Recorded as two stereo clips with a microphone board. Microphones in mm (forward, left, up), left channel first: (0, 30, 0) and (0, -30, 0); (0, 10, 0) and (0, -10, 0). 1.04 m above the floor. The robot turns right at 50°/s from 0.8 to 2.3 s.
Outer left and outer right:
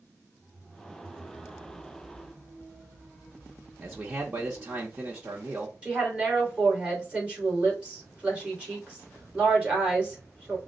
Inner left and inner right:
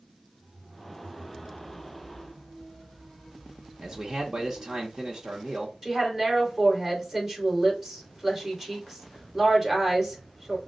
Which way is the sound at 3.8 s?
20° right (ahead or behind).